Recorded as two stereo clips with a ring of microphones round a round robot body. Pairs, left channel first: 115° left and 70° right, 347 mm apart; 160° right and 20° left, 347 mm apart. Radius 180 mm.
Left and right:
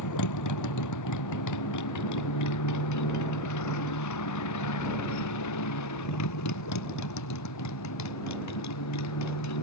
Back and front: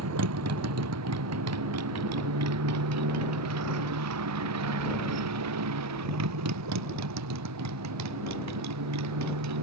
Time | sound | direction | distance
0.0 | a motorcycle | 70° left | ?